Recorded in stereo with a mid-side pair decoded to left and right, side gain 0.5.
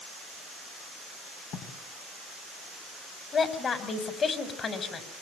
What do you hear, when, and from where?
1.5 s writing: 70° left, 6 m
3.3 s a woman speaking: 45° left, 5.5 m